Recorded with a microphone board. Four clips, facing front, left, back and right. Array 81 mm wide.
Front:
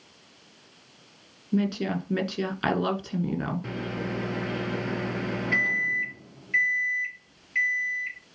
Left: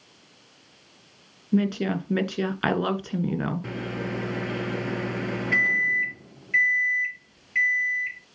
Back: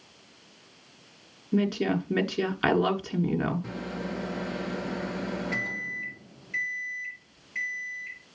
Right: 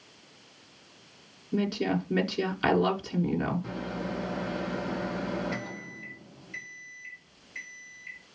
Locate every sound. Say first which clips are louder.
1.5 s a woman speaking: left 4 dB, back 1 dB; 110° left, 1.5 m
3.6 s a microwave: left 3 dB, front 2 dB; 65° left, 1.4 m